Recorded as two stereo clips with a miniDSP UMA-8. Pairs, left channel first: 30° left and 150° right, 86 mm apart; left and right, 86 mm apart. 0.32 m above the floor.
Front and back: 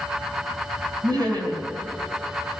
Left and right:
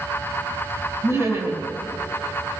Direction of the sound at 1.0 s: 140° right.